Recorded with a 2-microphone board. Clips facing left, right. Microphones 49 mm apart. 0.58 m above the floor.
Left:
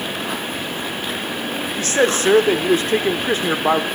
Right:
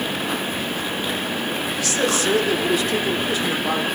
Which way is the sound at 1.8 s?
40° left (ahead or behind).